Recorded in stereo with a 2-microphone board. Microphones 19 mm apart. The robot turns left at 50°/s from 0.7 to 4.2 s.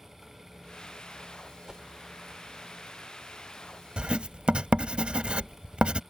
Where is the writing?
60° right (ahead or behind); by 6.0 s 70° right (ahead or behind).